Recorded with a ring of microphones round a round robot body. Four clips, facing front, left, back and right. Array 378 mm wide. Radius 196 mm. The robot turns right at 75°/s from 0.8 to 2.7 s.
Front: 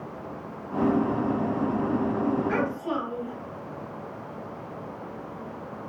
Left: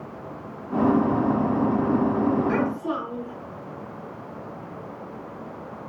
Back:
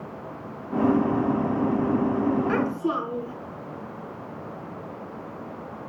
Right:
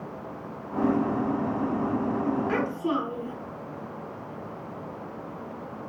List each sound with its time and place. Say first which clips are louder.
2.5 s a child speaking: left 2 dB, back 3 dB; 175° right, 4.5 m; by 3.4 s 160° right, 4.5 m